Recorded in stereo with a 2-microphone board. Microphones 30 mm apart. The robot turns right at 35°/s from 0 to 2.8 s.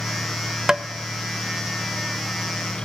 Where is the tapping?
25° right (ahead or behind), 1.1 m; by 0.8 s 30° right (ahead or behind), 1.1 m.